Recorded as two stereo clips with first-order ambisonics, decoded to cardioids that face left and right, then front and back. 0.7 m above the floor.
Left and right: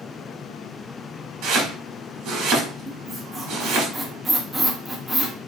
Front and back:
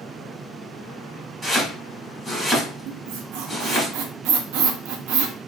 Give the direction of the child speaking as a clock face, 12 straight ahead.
I don't hear a child speaking.